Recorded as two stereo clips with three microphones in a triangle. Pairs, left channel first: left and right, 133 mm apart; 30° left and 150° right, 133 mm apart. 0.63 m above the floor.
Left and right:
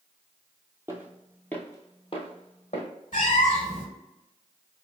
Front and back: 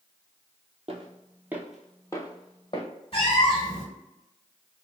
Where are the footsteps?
155° right, 0.9 m; by 2.9 s 65° left, 1.3 m.